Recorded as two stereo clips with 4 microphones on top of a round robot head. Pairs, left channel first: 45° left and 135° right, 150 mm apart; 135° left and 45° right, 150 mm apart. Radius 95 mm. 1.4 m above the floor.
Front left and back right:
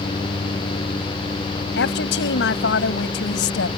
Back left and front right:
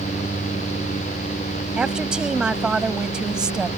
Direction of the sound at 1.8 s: 40° left.